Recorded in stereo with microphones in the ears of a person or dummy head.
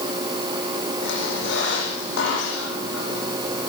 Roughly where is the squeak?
Left.